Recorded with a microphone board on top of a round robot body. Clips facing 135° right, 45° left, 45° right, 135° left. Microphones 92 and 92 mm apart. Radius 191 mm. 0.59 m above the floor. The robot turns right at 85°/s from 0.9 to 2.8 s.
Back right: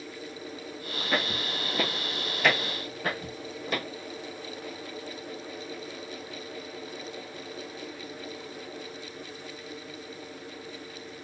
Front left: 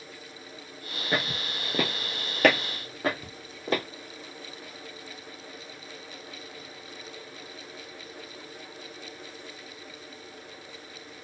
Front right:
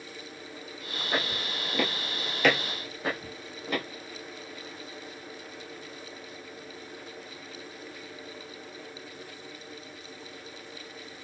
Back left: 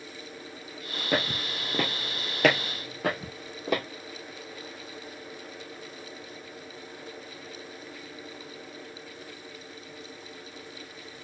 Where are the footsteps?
115° left, 0.8 m; by 3.8 s 105° left, 2.5 m.